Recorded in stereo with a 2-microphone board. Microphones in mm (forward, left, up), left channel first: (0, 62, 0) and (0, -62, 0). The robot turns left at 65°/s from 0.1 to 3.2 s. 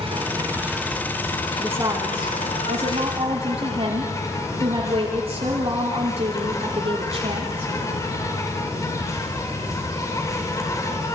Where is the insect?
130° right, 6.5 m; by 11.2 s 30° left, 6.5 m.